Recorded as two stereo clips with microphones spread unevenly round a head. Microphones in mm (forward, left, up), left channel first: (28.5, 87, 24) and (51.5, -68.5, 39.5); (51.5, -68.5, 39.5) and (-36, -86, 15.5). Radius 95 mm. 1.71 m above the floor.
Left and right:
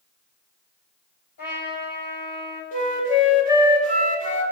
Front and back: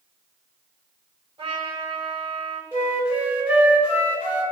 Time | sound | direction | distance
1.4 | a trumpet | 135° left | 6.5 m
2.7 | a flute | 55° left | 3.5 m